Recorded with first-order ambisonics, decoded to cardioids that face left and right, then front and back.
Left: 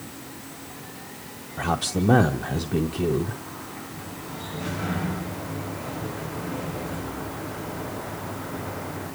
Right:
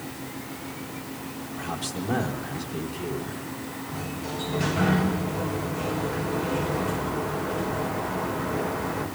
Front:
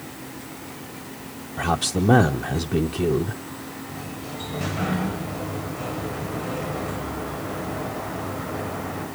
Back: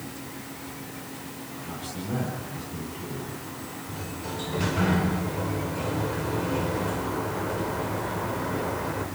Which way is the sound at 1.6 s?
35° left.